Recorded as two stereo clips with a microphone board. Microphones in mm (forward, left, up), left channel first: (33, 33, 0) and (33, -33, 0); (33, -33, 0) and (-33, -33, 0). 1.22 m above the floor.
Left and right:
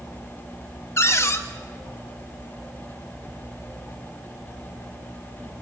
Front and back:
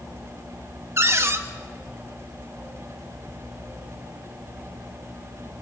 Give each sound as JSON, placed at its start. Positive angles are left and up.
{"t": 1.0, "sound": "a cupboard door", "azimuth_deg": 135, "distance_m": 1.2}